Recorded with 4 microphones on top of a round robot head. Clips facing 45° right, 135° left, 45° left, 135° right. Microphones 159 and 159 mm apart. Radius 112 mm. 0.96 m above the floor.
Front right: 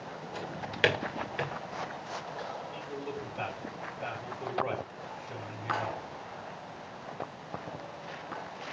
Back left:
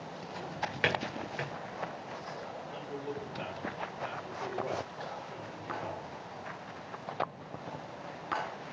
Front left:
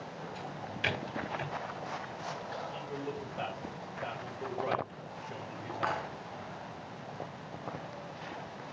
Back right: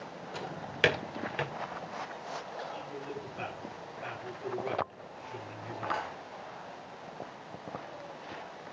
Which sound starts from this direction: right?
A drawer, at 0.3 s.